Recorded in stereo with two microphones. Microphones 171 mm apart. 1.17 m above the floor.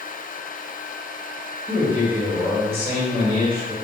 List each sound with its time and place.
1.7 s a man speaking: 35° right (ahead or behind), 1.5 m